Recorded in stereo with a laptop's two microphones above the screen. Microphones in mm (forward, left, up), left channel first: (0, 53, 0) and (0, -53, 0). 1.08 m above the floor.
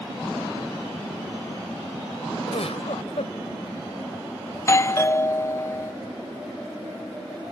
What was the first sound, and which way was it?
A giggle, 85° left.